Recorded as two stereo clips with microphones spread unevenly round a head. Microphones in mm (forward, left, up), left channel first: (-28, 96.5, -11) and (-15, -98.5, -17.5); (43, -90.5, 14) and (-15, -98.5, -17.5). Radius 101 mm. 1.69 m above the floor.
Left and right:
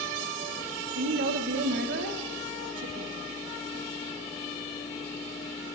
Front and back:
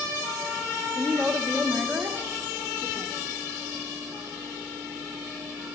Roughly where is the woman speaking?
Right.